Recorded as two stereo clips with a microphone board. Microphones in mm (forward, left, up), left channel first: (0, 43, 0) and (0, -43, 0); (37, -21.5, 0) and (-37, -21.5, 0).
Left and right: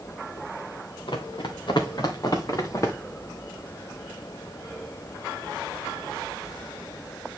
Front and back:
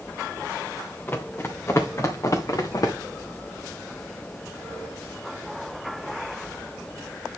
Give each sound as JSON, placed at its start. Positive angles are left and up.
{"t": 1.1, "sound": "running footsteps", "azimuth_deg": 65, "distance_m": 2.0}